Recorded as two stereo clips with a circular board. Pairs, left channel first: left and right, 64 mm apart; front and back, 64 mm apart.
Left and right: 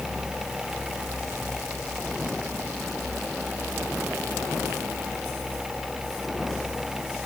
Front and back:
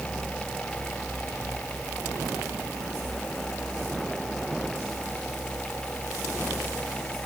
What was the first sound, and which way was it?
Only background noise.